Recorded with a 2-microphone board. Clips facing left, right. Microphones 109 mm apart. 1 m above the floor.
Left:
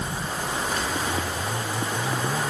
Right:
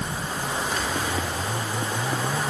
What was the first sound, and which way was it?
Only background noise.